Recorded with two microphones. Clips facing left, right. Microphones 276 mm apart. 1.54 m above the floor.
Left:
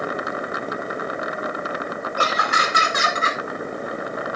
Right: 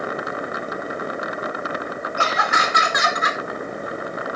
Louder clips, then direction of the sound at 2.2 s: Right 1 dB; 45° left (ahead or behind).